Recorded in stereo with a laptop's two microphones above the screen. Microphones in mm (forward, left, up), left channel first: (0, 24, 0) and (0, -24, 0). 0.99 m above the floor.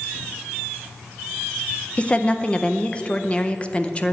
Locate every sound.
2.0 s a woman speaking: 25° left (ahead or behind), 0.5 m